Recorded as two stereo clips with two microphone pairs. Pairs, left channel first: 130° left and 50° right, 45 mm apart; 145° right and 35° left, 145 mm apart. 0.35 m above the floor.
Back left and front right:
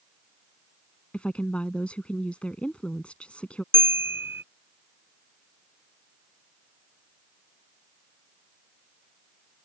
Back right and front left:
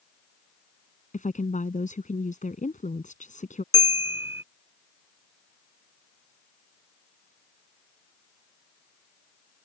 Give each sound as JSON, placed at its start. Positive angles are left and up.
{"t": 1.1, "sound": "a woman speaking", "azimuth_deg": -165}
{"t": 3.7, "sound": "a bell", "azimuth_deg": -35}